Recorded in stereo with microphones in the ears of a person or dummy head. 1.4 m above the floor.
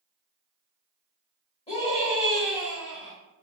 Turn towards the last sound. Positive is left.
turn(degrees=25)  # may be behind; listen again after turning